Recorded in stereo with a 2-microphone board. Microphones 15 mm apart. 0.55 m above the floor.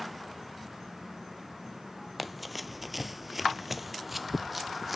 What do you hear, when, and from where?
2.2 s running footsteps: 5° right (ahead or behind), 0.7 m